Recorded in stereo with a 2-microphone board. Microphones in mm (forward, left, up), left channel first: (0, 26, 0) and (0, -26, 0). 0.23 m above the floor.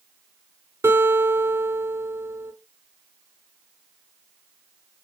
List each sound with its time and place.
0.8 s a guitar: 55° right (ahead or behind), 3 m